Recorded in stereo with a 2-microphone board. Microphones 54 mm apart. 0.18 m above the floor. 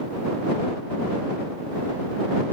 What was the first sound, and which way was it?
Only background noise.